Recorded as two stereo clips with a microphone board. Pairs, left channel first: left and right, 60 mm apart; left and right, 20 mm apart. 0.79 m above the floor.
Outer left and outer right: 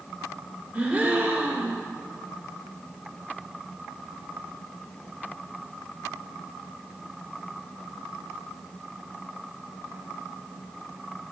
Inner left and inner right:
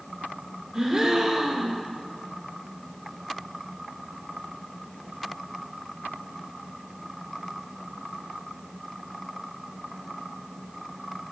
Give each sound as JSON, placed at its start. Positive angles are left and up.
{"t": 0.7, "sound": "a gasp", "side_deg": -25, "distance_m": 1.4}